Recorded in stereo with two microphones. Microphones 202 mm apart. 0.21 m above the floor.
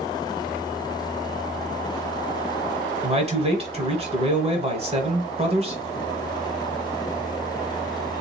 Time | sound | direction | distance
3.0 | a man speaking | 30° right (ahead or behind) | 1.1 m